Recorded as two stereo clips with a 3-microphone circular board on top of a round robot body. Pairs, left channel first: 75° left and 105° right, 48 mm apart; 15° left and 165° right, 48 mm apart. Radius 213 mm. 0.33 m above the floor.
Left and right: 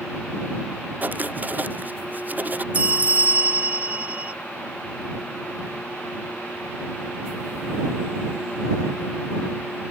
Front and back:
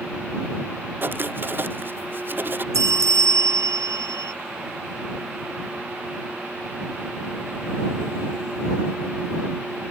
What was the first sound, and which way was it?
Writing, 140° right.